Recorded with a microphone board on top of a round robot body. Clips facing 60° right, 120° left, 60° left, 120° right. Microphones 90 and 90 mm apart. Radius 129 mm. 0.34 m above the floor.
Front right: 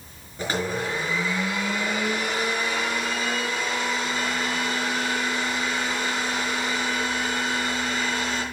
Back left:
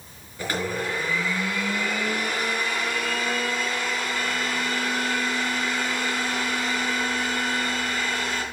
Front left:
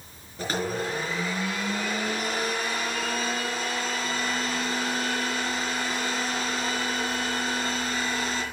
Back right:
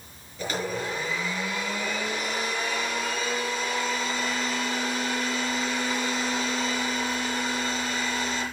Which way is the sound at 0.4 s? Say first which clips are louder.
Front right 1 dB, front left 1 dB; 5° left.